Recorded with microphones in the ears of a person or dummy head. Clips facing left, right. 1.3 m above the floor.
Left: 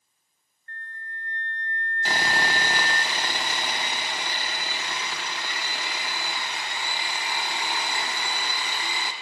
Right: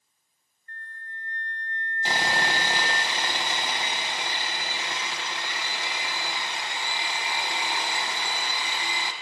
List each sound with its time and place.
0.7 s a flute: 10° right (ahead or behind), 0.9 m
2.0 s sawing: 20° right (ahead or behind), 1.2 m